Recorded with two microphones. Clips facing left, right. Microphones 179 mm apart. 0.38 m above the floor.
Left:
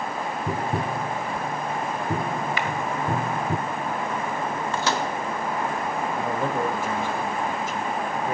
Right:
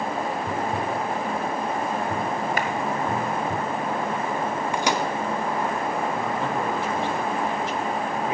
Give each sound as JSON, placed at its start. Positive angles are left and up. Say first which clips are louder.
{"t": 0.5, "sound": "tapping", "louder": "right 1 dB", "side_deg": 70, "distance_m": 0.7}
{"t": 2.6, "sound": "a clap", "louder": "right 2 dB", "side_deg": -50, "distance_m": 1.5}
{"t": 4.7, "sound": "a microwave", "louder": "right 1 dB", "side_deg": -15, "distance_m": 0.8}
{"t": 6.1, "sound": "a man speaking", "louder": "left 1 dB", "side_deg": 50, "distance_m": 2.0}